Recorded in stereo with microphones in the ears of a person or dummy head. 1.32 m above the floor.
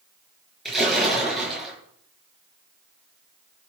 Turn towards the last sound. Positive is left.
turn(degrees=-5)  # may be behind; listen again after turning